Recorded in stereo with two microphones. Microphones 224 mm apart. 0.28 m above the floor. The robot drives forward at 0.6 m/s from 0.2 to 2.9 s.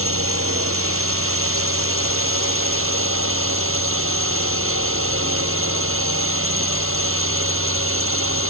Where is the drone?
75° right (ahead or behind); by 8.5 s 70° right (ahead or behind).